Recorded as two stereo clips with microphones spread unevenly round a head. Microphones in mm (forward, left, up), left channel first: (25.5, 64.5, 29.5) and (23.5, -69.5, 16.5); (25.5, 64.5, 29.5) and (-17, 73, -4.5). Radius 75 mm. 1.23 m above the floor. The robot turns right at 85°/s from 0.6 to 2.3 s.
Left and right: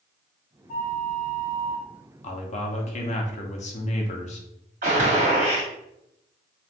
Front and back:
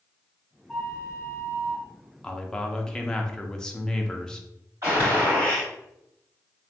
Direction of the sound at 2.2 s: 100° left.